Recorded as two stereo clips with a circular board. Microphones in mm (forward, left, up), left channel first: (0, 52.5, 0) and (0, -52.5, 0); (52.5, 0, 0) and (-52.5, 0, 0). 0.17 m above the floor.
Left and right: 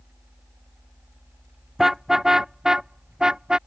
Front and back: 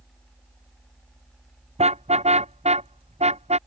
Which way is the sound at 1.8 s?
Straight behind.